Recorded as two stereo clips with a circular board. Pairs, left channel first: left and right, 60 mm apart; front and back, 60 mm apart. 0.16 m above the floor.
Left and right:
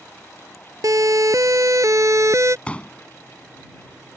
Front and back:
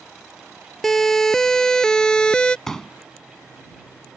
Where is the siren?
85° right; by 2.6 s 70° right.